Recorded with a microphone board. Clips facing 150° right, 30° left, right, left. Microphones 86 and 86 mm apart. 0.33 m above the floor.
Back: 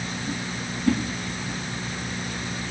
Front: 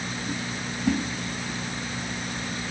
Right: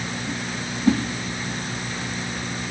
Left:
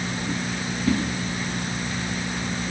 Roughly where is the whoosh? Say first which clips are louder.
Back 2 dB, right 4 dB; ahead right.